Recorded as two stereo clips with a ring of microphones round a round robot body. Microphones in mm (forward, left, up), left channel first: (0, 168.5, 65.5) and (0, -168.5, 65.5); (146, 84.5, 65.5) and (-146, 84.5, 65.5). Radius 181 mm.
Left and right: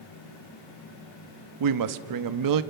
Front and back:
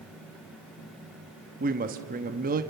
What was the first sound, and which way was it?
A woman speaking, 115° right.